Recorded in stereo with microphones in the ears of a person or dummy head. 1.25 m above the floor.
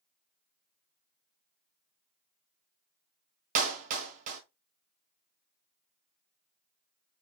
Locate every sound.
3.5 s a clap: 50° right (ahead or behind), 1.3 m